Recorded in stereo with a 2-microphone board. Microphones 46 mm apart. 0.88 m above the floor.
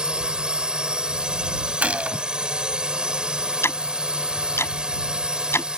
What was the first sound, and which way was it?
A drone, 20° right (ahead or behind).